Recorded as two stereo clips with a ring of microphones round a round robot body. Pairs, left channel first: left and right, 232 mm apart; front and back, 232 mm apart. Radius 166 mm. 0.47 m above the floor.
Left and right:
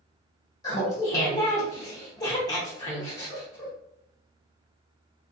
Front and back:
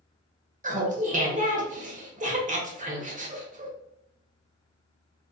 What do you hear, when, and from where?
0.6 s laughter: 155° left, 1.0 m